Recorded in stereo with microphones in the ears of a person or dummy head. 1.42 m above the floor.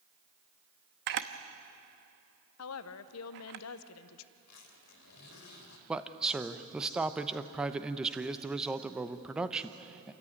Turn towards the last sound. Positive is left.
turn(degrees=-5)  # may be behind; listen again after turning